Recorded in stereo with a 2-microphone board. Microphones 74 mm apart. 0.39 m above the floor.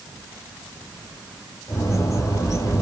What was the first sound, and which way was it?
A bird, 40° left (ahead or behind).